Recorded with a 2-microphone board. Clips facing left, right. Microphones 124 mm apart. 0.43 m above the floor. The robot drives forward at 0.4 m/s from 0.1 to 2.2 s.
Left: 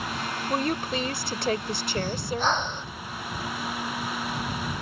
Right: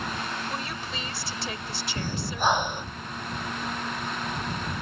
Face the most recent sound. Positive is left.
turn(degrees=-10)  # may be behind; listen again after turning